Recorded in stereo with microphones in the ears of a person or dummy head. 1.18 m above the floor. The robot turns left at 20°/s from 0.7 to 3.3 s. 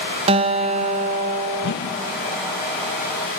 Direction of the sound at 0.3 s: 25° right (ahead or behind).